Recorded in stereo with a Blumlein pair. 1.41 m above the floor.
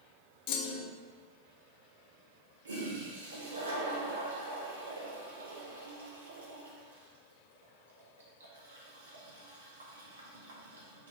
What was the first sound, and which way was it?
A clunk, 40° left.